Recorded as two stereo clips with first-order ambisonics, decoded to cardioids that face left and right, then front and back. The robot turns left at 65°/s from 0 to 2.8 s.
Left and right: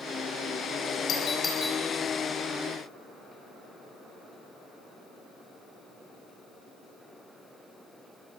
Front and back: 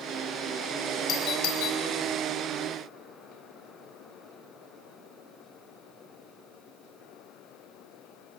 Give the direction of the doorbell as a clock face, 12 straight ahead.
11 o'clock.